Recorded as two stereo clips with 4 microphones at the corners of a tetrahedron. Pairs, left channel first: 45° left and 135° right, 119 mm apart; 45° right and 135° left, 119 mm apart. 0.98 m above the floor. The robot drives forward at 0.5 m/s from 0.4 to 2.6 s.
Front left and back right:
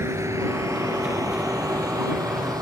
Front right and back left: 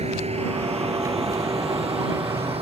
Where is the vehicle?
160° left; by 2.6 s 170° left.